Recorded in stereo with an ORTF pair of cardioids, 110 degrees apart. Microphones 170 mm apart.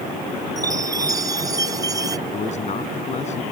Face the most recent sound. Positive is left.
turn(degrees=45)